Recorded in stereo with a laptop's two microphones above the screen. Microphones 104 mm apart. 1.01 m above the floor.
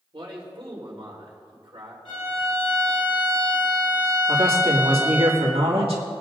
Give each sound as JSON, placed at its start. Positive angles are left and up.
{"t": 0.1, "sound": "a man speaking", "side_deg": -65, "distance_m": 3.0}
{"t": 2.0, "sound": "a violin", "side_deg": 55, "distance_m": 4.5}
{"t": 4.3, "sound": "a man speaking", "side_deg": -70, "distance_m": 2.0}